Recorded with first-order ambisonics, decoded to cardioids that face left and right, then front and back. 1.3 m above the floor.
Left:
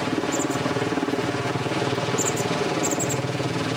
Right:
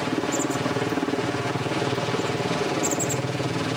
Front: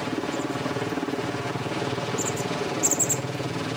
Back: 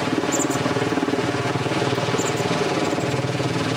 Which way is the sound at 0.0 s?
170° left.